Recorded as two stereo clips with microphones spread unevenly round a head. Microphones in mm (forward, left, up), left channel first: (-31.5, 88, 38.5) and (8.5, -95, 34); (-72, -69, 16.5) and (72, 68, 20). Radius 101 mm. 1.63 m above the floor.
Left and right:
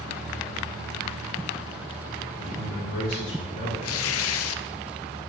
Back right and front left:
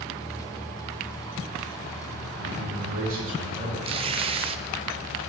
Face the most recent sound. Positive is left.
turn(degrees=110)